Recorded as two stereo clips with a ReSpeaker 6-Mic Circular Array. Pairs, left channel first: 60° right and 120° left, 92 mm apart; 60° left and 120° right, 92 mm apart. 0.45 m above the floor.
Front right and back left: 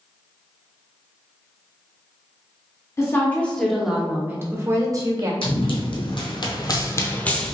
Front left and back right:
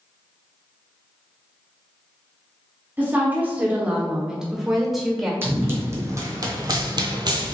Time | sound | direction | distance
3.0 | a woman speaking | 75° right | 0.8 m
5.4 | running footsteps | 55° right | 1.2 m